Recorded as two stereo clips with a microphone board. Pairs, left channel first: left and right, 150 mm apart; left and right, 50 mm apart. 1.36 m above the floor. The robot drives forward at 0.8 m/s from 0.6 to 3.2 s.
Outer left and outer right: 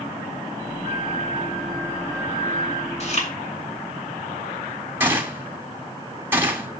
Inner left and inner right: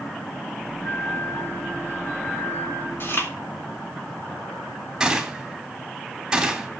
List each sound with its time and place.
0.8 s a flute: 55° left (ahead or behind), 5 m; by 2.9 s 45° left (ahead or behind), 6 m
3.0 s chewing: 50° left (ahead or behind), 3.5 m
5.0 s a gunshot: 15° right (ahead or behind), 2.5 m